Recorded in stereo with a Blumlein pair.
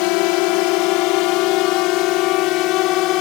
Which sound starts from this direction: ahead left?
A drone, at 0.0 s.